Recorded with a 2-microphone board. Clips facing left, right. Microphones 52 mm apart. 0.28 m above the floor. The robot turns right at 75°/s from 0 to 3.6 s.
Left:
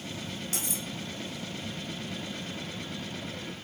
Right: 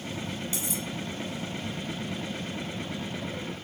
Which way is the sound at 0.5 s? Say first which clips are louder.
Right 3 dB; 55° left (ahead or behind).